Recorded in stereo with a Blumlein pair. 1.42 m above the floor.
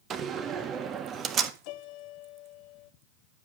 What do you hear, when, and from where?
0.1 s a door slam: 25° right, 1.5 m
1.6 s a piano: 45° left, 1.2 m